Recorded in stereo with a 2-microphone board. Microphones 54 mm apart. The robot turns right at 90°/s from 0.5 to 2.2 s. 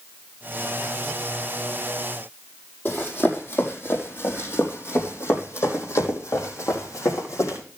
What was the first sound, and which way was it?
Running footsteps, 35° left (ahead or behind).